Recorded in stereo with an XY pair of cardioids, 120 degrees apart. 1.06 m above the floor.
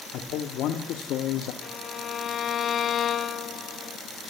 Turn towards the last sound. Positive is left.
turn(degrees=45)